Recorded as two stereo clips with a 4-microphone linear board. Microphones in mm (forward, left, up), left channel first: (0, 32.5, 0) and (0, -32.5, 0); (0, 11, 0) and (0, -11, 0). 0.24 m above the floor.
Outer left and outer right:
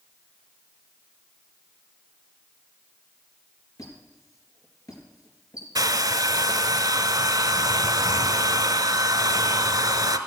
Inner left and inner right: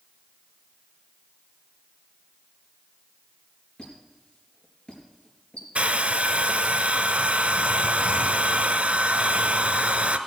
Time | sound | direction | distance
3.8 | a squeak | 60° left (ahead or behind) | 3.5 m
5.8 | a hair dryer | 80° right | 0.8 m